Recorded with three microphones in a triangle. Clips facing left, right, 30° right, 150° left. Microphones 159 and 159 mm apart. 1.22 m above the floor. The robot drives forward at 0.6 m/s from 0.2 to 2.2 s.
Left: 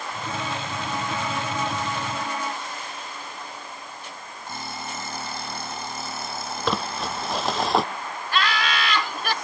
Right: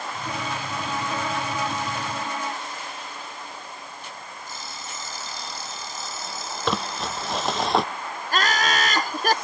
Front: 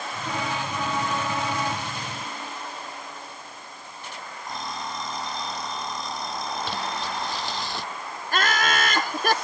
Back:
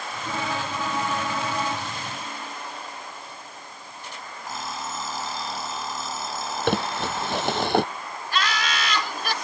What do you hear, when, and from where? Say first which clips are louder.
4.5 s an alarm clock: left 8 dB, even; 65° left
6.7 s crumpling: even, back 5 dB; straight behind
8.3 s laughter: right 1 dB, front 3 dB; 55° right